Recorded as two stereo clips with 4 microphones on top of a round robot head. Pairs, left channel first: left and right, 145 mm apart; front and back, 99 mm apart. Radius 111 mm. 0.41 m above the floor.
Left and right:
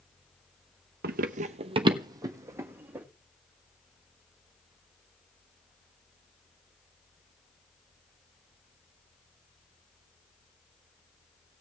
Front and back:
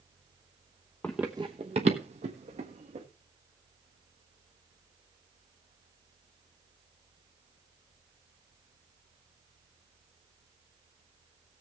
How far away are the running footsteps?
About 0.6 m.